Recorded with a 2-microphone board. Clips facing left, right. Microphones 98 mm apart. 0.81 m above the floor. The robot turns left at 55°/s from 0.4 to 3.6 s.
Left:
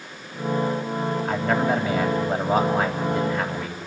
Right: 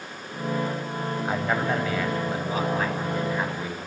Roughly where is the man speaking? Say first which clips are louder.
Left 3 dB; behind.